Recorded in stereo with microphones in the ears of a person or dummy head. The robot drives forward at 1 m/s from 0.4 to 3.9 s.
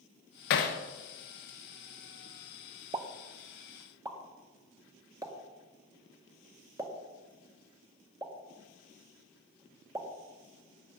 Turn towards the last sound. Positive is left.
turn(degrees=-10)  # may be behind; listen again after turning